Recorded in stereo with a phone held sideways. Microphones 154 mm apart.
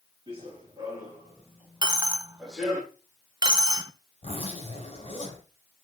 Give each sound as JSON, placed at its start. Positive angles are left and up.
{"t": 0.3, "sound": "running footsteps", "side_deg": -40, "distance_m": 4.0}
{"t": 1.8, "sound": "a dropped coin", "side_deg": -30, "distance_m": 0.5}
{"t": 4.2, "sound": "a zipper", "side_deg": 40, "distance_m": 5.5}